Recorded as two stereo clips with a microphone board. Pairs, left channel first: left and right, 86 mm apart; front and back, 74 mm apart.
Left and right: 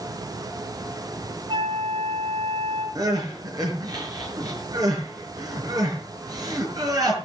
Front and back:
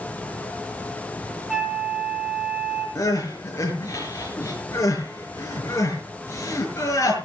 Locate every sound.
1.5 s a flute: 100° right, 4 m
3.0 s crying: 50° right, 6 m